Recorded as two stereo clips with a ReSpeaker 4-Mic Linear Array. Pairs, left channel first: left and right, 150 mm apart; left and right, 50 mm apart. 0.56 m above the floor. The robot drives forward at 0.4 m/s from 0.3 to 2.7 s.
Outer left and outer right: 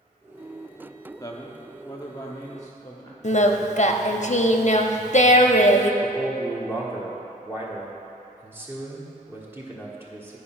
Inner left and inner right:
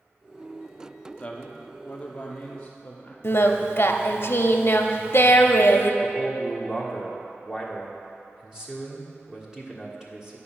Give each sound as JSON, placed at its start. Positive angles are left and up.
{"t": 1.2, "sound": "a man speaking", "side_deg": 25, "distance_m": 0.7}
{"t": 3.2, "sound": "singing", "side_deg": 55, "distance_m": 0.5}
{"t": 6.0, "sound": "a man speaking", "side_deg": -15, "distance_m": 1.4}